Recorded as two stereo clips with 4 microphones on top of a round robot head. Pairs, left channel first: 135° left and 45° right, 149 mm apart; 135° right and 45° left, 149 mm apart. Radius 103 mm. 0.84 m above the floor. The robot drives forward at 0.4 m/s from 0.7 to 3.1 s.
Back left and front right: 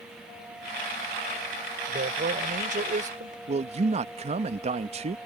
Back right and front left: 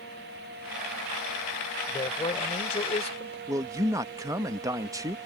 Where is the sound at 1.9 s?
75° right; by 3.4 s 80° right.